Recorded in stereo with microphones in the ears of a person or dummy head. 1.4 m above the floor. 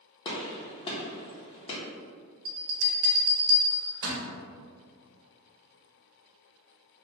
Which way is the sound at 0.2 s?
25° left (ahead or behind).